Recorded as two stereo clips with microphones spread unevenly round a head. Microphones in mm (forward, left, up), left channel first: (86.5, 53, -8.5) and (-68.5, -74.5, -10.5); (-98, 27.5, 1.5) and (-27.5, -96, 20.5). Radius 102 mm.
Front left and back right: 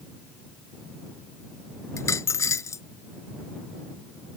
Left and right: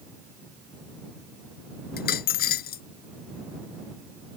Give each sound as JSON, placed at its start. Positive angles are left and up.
{"t": 2.0, "sound": "a dropped coin", "azimuth_deg": 115}